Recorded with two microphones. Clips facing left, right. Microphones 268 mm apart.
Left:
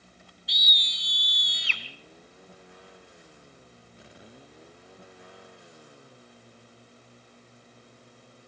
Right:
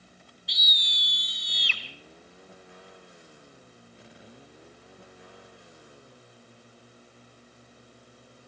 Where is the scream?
Centre (ahead or behind), 1.9 m; by 1.8 s 45° right (ahead or behind), 1.9 m.